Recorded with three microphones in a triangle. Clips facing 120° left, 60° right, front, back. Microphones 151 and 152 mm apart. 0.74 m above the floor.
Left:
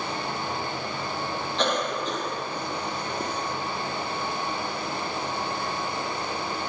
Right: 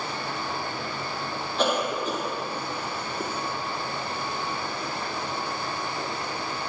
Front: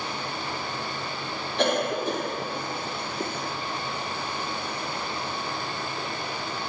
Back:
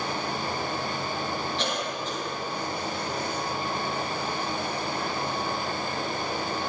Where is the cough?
20° left, 0.8 m.